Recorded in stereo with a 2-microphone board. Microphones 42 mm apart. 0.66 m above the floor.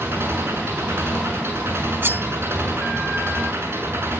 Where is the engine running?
85° right, 7 m.